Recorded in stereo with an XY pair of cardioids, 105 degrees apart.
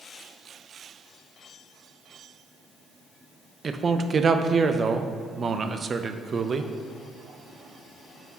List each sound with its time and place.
3.6 s a man speaking: 35° right, 0.5 m